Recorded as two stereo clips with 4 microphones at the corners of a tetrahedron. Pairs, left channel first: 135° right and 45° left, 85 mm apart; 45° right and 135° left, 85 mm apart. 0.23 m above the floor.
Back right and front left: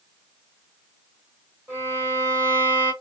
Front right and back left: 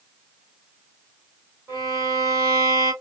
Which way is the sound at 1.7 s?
95° left.